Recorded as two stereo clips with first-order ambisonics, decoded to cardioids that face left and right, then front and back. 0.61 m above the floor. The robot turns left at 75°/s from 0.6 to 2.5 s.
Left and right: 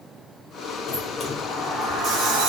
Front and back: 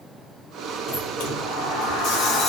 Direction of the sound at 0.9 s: 45° left.